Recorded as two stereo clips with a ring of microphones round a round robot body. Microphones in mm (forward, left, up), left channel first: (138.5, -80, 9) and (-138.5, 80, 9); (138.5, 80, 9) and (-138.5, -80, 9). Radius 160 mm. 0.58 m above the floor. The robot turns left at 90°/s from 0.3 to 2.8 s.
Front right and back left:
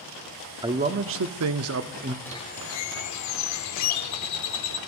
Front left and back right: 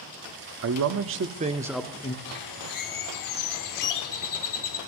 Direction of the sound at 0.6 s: 135° right.